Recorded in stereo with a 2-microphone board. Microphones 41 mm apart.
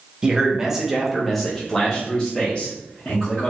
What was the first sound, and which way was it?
A man speaking, 20° right (ahead or behind).